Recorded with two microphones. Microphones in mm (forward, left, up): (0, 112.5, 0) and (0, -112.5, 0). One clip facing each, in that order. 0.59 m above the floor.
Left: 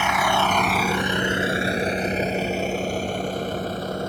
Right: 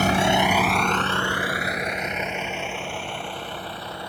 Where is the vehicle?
45° right (ahead or behind); by 4.1 s 50° left (ahead or behind).